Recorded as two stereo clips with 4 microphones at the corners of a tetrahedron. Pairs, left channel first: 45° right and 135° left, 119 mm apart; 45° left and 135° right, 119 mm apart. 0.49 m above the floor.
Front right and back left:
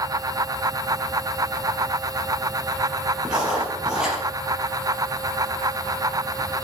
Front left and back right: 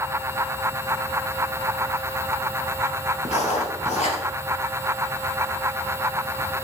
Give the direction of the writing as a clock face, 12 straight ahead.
10 o'clock.